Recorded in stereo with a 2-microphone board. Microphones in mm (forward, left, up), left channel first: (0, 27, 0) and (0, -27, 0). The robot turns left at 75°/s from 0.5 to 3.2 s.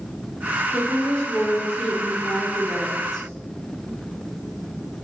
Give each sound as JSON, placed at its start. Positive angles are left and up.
{"t": 0.7, "sound": "a woman speaking", "azimuth_deg": -160, "distance_m": 3.5}